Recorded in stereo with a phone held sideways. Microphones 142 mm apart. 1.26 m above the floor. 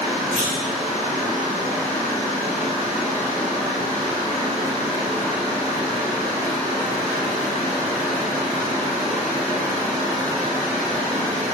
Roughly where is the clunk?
Right.